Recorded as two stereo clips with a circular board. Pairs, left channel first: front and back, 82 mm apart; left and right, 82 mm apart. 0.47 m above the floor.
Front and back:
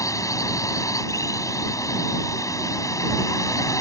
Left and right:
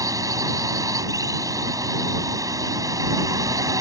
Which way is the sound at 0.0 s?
45° right.